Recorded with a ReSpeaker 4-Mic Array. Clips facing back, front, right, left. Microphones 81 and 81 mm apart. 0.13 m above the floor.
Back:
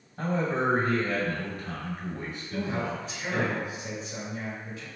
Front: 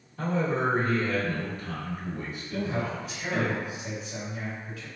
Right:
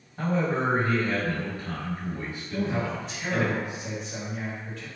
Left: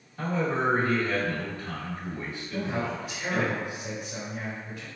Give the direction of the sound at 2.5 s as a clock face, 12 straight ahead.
7 o'clock.